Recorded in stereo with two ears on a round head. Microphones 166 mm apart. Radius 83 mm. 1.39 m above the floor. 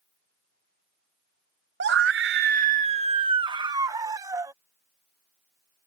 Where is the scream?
60° right (ahead or behind); by 4.5 s 15° right (ahead or behind).